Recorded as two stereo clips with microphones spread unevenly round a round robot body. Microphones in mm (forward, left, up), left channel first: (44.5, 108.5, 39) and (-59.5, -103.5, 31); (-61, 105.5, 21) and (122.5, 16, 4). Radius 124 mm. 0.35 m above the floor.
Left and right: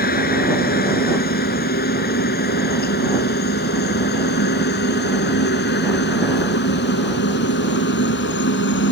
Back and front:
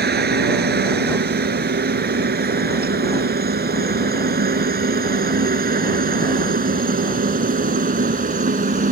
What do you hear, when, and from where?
0.0 s a helicopter: 10° left; by 8.9 s 20° left